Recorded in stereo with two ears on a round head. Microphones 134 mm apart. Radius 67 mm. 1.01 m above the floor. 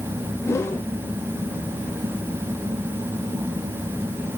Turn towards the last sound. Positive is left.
turn(degrees=20)  # may be behind; listen again after turning